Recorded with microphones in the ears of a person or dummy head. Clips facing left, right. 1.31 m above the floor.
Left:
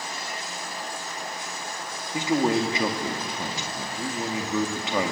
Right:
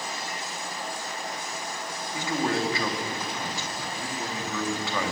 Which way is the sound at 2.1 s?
20° left (ahead or behind).